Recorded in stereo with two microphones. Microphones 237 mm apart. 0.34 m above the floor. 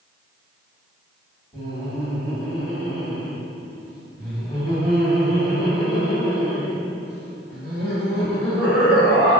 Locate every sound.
1.5 s laughter: 15° left (ahead or behind), 1.6 m